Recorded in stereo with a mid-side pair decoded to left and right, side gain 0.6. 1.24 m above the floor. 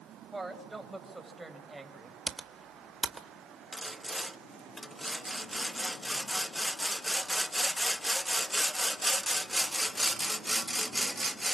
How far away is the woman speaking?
About 7 m.